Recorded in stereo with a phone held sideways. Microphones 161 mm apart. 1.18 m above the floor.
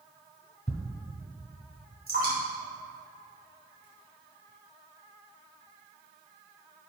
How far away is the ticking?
About 1.2 m.